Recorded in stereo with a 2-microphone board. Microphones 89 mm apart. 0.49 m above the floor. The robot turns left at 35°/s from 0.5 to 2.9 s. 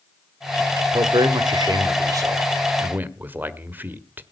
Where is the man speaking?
85° right, 1.4 m; by 4.2 s 155° right, 1.4 m.